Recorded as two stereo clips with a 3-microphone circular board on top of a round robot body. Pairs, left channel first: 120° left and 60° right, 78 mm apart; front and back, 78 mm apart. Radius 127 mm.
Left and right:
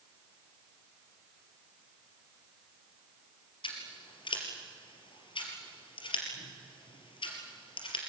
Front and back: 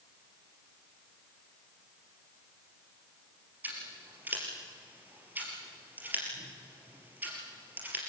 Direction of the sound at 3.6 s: 110° left.